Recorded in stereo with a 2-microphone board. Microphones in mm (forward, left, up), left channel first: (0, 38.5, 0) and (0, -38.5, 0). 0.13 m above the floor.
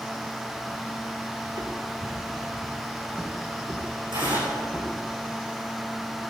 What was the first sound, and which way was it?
Footsteps, 70° right (ahead or behind).